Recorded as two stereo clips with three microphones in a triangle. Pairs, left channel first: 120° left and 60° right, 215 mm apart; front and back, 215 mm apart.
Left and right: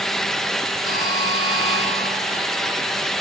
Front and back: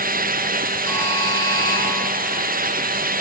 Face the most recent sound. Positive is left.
turn(degrees=70)